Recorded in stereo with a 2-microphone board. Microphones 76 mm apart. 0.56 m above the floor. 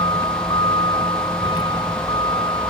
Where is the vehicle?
80° left; by 2.7 s 70° left (ahead or behind).